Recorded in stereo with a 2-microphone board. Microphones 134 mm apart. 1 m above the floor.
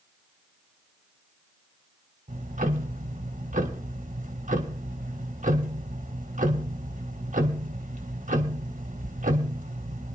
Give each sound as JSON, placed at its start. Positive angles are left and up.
{"t": 2.3, "sound": "ticking", "side_deg": -70, "distance_m": 1.5}